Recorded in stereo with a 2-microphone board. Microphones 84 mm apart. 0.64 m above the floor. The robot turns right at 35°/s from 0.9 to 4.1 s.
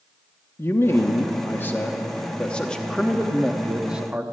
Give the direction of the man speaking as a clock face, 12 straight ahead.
9 o'clock.